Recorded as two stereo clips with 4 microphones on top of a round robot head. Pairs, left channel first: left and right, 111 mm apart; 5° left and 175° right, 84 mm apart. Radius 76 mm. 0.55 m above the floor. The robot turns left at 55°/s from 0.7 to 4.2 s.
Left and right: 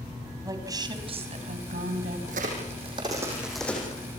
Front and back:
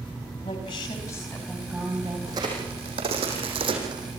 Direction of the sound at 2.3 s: 110° right.